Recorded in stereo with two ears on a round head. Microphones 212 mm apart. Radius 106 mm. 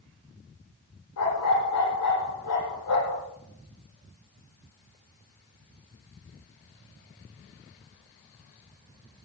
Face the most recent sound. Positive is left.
turn(degrees=80)